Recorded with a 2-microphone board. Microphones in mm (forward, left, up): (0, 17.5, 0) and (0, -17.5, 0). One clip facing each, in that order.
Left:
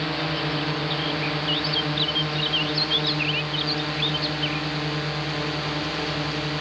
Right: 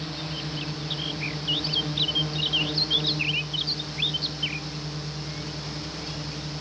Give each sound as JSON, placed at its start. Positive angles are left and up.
{"t": 0.0, "sound": "a drone", "side_deg": 40}